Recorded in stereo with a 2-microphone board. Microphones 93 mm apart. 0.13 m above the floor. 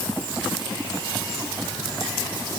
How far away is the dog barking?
No dog barking in this recording.